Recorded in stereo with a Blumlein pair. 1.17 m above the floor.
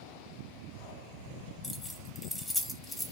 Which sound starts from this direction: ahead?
Keys jangling, at 1.6 s.